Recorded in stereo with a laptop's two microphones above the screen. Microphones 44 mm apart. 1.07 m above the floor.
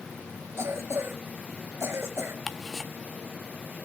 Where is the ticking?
5° left (ahead or behind), 1.1 m.